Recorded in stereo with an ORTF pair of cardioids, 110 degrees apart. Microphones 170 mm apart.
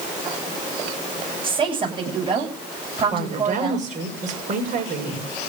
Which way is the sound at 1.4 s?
30° right.